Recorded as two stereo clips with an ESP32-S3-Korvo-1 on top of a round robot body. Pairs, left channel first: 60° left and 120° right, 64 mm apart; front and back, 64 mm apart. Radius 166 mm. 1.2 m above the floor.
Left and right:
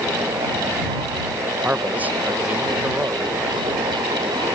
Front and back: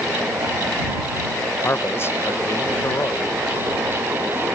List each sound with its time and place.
1.6 s a man speaking: 55° right